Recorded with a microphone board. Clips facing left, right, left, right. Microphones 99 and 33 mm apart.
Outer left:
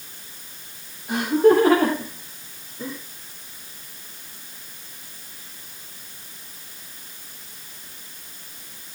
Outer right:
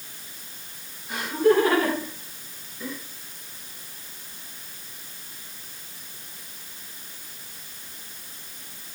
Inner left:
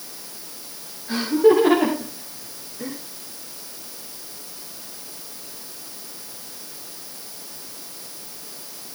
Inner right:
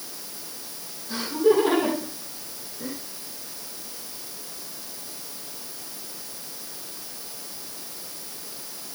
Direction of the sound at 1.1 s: 55° left (ahead or behind).